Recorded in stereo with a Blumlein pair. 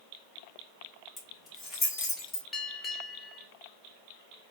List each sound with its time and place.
1.2 s keys jangling: 10° left, 3 m; by 2.4 s 20° left, 2.5 m
2.5 s a bell: 15° left, 1.5 m